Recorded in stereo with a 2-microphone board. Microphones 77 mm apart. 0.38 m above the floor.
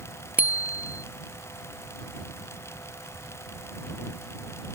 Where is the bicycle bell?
20° right (ahead or behind).